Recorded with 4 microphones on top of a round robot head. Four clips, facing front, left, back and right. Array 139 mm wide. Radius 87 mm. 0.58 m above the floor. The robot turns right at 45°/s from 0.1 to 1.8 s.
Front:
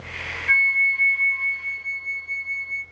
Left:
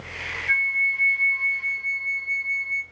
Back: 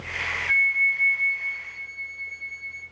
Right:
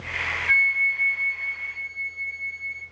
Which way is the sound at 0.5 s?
15° right.